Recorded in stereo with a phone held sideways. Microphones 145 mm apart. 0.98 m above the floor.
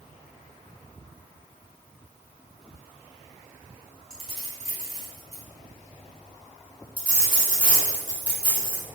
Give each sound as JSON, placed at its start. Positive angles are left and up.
{"t": 4.1, "sound": "keys jangling", "side_deg": 55, "distance_m": 1.8}
{"t": 7.0, "sound": "a dropped coin", "side_deg": 35, "distance_m": 1.6}